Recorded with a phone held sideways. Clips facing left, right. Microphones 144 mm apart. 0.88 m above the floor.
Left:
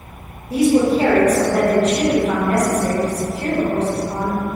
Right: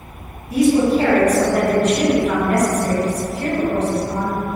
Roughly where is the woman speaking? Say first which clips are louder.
Even; left.